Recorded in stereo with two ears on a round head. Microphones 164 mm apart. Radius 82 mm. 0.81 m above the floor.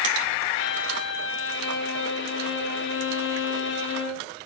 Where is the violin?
65° left (ahead or behind), 1.0 m.